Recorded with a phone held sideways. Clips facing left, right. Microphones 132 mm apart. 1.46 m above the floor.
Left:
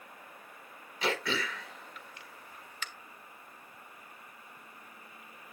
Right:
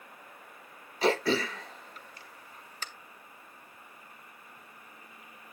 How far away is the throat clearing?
About 1.6 m.